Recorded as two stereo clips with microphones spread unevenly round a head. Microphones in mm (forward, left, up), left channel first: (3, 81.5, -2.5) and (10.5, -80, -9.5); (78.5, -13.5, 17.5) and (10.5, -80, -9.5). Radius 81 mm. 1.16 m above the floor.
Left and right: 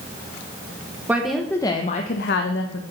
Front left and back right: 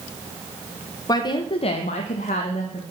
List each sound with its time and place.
1.1 s a woman speaking: 5° right, 0.8 m; by 2.8 s 90° left, 0.8 m